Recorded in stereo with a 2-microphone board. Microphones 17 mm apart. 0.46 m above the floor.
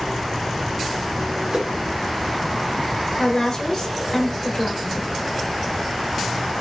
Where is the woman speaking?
55° left (ahead or behind), 1.5 m.